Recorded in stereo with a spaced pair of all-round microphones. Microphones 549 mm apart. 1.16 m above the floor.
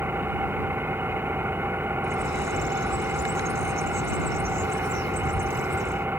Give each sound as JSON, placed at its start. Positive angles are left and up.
{"t": 0.0, "sound": "an engine running", "side_deg": -5}
{"t": 2.0, "sound": "a bird", "side_deg": 30}